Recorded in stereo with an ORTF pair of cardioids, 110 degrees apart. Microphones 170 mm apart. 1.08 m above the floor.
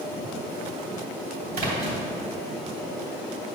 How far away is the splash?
About 3 m.